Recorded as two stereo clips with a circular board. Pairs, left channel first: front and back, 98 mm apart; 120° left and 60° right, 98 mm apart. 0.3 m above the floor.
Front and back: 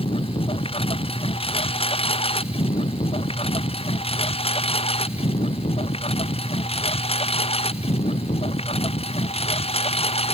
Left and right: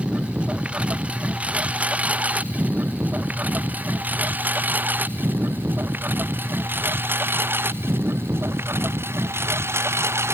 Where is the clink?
I don't hear a clink.